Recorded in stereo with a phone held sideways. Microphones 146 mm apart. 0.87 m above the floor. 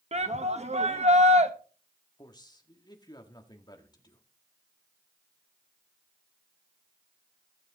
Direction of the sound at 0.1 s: 50° right (ahead or behind).